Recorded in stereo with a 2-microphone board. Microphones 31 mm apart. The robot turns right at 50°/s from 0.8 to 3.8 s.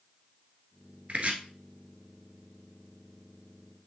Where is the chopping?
45° right (ahead or behind), 1.3 m; by 1.4 s 40° right (ahead or behind), 1.3 m.